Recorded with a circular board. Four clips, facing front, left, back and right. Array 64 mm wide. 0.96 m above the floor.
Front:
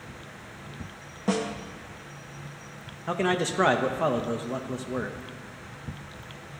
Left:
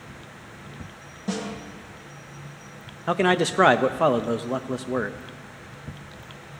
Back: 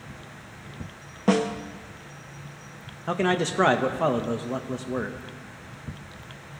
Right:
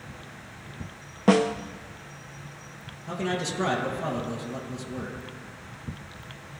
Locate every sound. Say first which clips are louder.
1.3 s a snare drum: right 10 dB, back 5 dB; 115° right, 0.7 m
3.1 s a man speaking: left 9 dB, back 2 dB; 95° left, 0.8 m